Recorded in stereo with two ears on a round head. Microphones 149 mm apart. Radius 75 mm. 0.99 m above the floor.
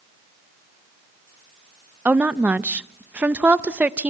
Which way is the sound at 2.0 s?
10° right (ahead or behind).